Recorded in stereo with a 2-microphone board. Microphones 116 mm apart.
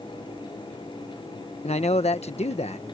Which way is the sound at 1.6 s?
65° left (ahead or behind).